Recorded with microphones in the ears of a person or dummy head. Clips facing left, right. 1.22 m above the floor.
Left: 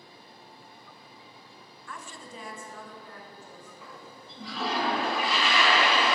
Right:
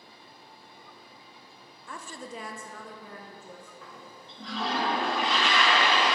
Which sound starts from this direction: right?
A woman speaking, at 1.9 s.